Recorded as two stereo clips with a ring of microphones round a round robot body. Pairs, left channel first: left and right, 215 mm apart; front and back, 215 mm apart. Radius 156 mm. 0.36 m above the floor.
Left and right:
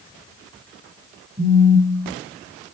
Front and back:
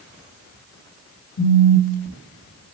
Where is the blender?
No blender in this recording.